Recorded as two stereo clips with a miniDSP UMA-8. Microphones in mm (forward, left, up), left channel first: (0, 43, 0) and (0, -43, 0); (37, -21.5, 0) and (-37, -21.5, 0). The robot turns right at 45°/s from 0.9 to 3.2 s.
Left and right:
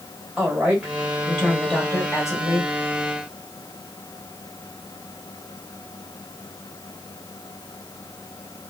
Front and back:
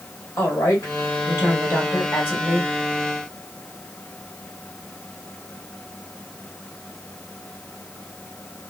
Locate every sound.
0.4 s a woman speaking: 15° right, 1.9 m; by 2.7 s 70° left, 1.9 m